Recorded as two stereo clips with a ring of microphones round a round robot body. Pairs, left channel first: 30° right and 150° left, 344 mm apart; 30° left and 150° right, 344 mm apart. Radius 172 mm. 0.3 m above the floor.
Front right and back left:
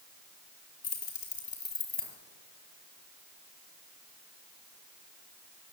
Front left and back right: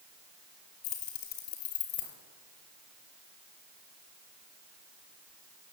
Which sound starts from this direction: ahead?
Keys jangling, at 0.8 s.